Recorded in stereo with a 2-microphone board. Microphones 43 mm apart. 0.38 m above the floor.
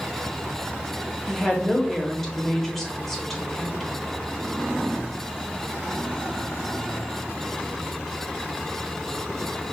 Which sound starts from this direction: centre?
A woman speaking, at 1.3 s.